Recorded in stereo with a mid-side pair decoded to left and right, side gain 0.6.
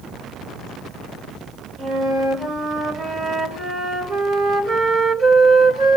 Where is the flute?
40° right, 4 m.